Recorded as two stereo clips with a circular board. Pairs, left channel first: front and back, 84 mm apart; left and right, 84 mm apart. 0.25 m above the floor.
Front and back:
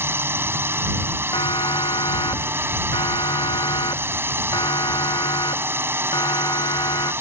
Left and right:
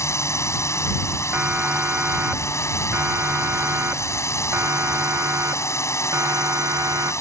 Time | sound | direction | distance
0.0 | a drone | 130° left | ?
1.3 | a siren | 20° right | ?